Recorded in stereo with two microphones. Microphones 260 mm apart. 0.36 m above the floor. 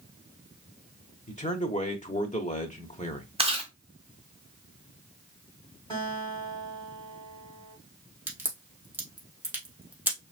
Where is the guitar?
15° left (ahead or behind), 3.5 m.